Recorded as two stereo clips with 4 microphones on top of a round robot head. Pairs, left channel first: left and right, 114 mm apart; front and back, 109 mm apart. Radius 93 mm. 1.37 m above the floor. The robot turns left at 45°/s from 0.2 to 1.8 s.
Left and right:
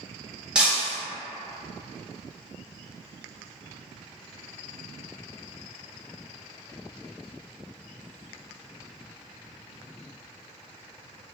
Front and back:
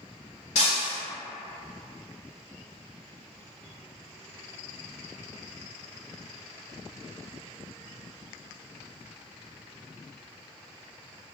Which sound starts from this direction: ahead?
Breaking glass, at 0.6 s.